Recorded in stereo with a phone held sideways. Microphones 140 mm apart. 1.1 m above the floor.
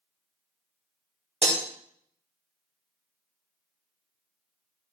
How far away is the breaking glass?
About 1.5 m.